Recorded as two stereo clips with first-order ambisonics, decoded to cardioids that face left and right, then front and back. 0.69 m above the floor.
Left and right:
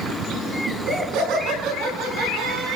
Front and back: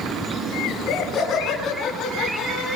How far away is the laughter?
About 7.5 m.